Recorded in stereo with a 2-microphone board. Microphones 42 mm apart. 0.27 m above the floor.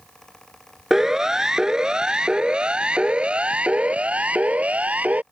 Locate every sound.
0.9 s a siren: 10° right (ahead or behind); by 5.2 s 35° right (ahead or behind)